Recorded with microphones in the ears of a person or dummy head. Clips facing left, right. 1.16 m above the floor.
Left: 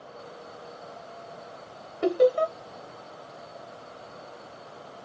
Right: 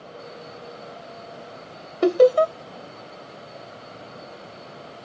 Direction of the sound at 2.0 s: 70° right (ahead or behind).